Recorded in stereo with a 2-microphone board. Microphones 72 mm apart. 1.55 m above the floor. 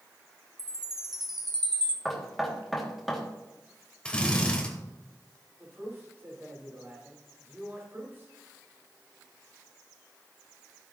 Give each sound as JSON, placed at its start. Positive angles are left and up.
{"t": 0.6, "sound": "a chime", "side_deg": -65, "distance_m": 1.4}
{"t": 2.0, "sound": "knocking", "side_deg": 0, "distance_m": 2.5}
{"t": 4.0, "sound": "a drill", "side_deg": 15, "distance_m": 2.5}
{"t": 5.6, "sound": "a man speaking", "side_deg": -35, "distance_m": 5.5}